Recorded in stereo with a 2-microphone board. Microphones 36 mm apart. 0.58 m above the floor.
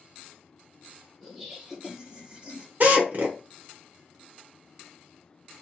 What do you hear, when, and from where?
1.2 s laughter: centre (ahead or behind), 0.9 m; by 2.7 s 40° right (ahead or behind), 1.2 m
2.8 s a drill: 50° right (ahead or behind), 1.0 m